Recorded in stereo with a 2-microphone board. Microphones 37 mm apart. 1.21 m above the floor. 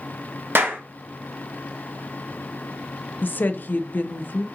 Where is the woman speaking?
55° left (ahead or behind), 0.6 m.